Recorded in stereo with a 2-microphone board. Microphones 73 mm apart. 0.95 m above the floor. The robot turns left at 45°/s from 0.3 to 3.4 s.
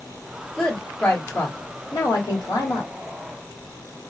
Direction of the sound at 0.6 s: Straight behind.